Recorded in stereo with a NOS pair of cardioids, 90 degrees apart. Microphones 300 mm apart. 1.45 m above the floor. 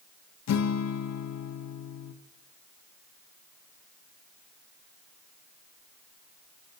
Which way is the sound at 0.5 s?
60° left.